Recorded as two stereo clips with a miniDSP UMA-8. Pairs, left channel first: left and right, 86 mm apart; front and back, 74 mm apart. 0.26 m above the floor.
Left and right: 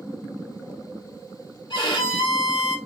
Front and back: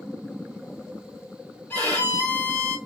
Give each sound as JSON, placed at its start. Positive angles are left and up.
{"t": 1.7, "sound": "a violin", "azimuth_deg": 65, "distance_m": 1.2}